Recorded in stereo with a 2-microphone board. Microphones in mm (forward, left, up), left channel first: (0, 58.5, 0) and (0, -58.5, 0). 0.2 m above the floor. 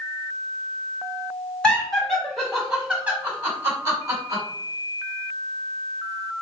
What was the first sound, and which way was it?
Laughter, 10° left (ahead or behind).